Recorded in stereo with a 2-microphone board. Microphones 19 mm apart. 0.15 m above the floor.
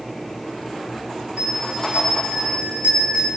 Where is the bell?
80° right, 9 m.